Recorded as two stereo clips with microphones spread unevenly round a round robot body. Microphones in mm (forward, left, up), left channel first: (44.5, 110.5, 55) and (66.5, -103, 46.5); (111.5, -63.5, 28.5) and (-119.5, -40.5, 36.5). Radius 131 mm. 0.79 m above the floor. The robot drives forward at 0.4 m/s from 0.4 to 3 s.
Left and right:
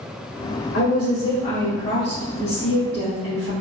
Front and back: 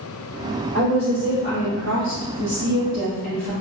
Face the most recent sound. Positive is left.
turn(degrees=155)